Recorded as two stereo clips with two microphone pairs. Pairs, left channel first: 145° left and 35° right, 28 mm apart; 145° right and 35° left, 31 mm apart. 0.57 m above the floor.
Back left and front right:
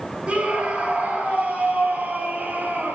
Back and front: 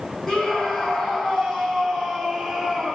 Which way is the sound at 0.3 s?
70° right.